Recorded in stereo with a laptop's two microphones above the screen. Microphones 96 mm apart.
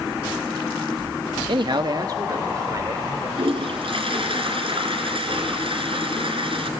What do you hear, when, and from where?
1.5 s a man speaking: 60° right (ahead or behind), 0.9 m; by 3.3 s 35° right (ahead or behind), 3.5 m
3.4 s a toilet flushing: 70° right (ahead or behind), 3 m